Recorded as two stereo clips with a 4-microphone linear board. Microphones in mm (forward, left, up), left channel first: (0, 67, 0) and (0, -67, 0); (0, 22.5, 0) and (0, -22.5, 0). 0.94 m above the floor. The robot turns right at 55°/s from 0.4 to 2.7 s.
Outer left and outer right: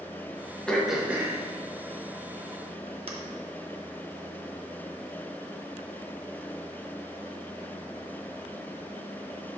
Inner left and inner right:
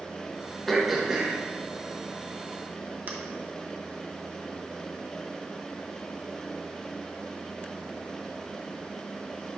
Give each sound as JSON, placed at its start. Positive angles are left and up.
{"t": 0.7, "sound": "throat clearing", "side_deg": 5, "distance_m": 0.9}